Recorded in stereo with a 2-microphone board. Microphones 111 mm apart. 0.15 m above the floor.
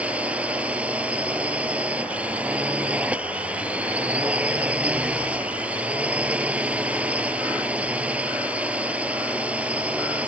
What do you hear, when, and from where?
0.0 s a drone: 10° right (ahead or behind)